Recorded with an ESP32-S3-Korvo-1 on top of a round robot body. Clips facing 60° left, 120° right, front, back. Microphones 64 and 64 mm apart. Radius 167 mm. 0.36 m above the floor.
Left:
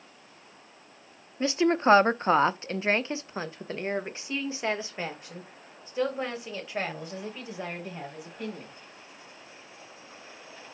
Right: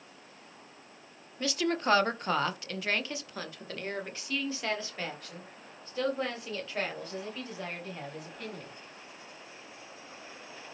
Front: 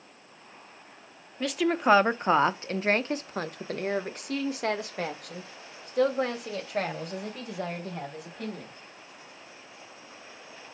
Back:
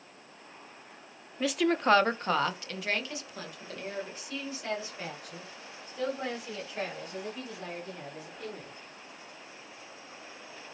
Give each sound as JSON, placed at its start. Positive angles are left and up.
{"t": 1.4, "sound": "a woman speaking", "azimuth_deg": 100, "distance_m": 1.1}